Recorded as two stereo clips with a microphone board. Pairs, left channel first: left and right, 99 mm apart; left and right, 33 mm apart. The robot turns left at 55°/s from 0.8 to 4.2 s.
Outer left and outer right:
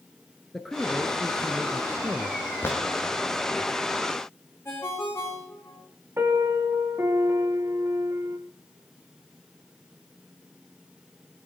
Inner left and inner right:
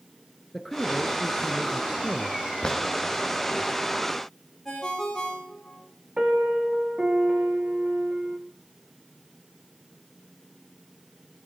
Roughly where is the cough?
I don't hear a cough.